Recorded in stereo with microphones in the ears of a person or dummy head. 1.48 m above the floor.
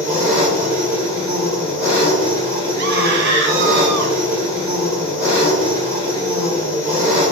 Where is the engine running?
5° right (ahead or behind), 1.7 m.